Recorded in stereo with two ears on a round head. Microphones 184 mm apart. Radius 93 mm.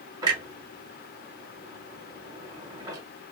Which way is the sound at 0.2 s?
20° right (ahead or behind).